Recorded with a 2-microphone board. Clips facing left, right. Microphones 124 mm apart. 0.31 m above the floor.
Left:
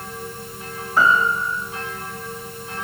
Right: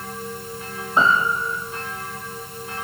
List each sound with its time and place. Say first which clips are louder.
1.0 s a piano: left 1 dB; 20° right (ahead or behind), 4.5 m